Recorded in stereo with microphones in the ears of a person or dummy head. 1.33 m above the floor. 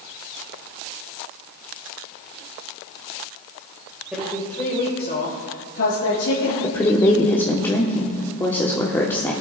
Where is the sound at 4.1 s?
Centre (ahead or behind), 1.7 m; by 6.5 s 80° left, 2.5 m.